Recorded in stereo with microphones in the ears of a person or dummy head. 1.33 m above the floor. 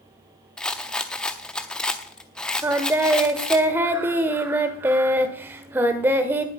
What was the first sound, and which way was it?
A rattle, 5° left (ahead or behind).